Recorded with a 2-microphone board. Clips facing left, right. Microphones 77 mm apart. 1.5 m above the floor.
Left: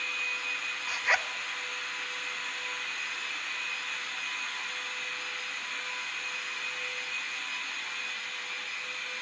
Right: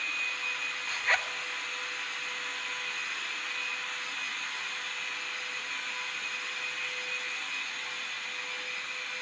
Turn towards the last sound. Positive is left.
turn(degrees=10)  # may be behind; listen again after turning